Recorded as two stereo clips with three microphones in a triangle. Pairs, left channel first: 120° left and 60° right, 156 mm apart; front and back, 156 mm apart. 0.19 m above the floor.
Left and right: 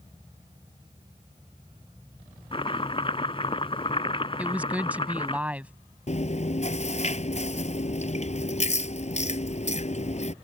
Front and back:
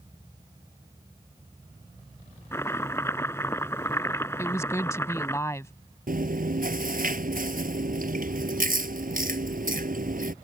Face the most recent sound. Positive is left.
turn(degrees=160)